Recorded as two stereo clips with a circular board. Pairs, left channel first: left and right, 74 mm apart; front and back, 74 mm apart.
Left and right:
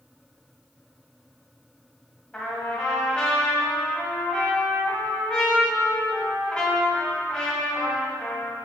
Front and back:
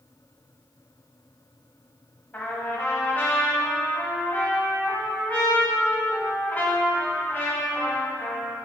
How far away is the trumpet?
About 1.4 m.